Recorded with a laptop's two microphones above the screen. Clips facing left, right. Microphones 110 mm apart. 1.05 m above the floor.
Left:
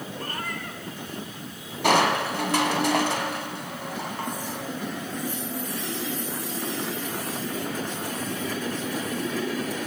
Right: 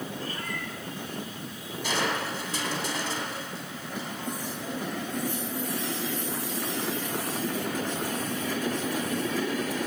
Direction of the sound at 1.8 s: 65° left (ahead or behind).